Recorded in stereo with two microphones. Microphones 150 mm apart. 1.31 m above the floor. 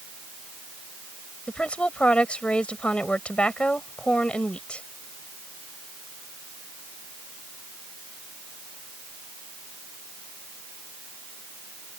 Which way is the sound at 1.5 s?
5° left (ahead or behind).